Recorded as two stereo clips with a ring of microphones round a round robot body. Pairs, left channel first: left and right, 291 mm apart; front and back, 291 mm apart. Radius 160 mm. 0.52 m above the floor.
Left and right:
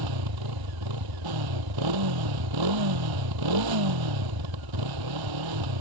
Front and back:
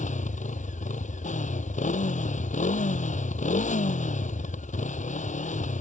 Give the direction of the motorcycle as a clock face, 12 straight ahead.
2 o'clock.